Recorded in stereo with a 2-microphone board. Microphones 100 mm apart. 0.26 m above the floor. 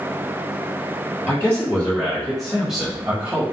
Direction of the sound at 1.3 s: 15° left (ahead or behind).